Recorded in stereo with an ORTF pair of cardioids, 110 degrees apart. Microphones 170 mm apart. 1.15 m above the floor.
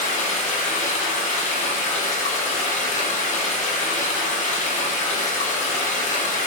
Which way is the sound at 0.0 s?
45° left.